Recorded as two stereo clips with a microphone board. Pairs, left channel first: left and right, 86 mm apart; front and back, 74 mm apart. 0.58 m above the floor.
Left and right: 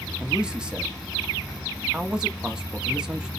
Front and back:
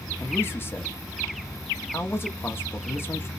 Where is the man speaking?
15° right, 0.7 m.